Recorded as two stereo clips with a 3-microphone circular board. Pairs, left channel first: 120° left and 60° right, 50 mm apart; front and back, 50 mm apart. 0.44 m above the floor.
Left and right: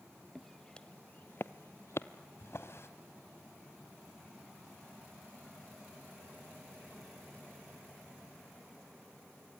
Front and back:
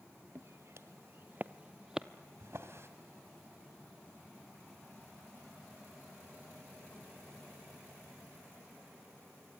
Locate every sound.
0.3 s footsteps: 150° right, 0.9 m; by 2.1 s 100° left, 0.9 m
2.4 s a drawer: 150° left, 1.8 m